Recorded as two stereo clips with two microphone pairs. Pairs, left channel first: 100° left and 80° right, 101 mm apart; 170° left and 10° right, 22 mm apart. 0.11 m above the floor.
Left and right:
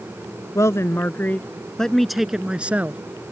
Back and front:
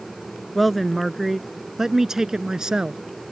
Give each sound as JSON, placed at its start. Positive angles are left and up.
{"t": 0.6, "sound": "a man speaking", "azimuth_deg": 85}